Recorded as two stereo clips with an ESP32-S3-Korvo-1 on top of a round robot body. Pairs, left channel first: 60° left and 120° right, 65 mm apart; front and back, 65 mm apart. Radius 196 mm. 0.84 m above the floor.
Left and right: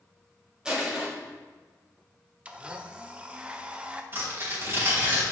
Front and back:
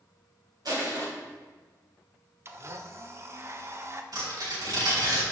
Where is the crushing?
165° left, 3 m.